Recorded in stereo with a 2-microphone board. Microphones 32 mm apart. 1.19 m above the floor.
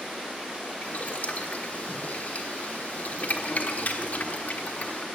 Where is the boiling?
60° left (ahead or behind), 1.3 m.